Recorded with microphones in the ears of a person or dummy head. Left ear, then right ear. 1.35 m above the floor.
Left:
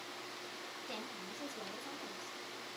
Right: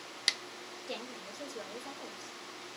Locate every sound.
0.9 s a woman speaking: 55° right (ahead or behind), 1.7 m